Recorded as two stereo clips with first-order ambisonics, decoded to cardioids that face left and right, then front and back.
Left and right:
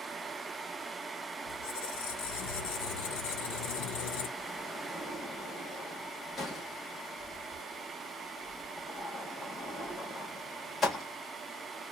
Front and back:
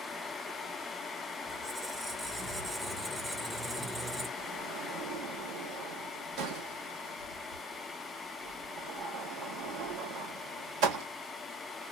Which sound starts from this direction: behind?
A sliding door, at 4.4 s.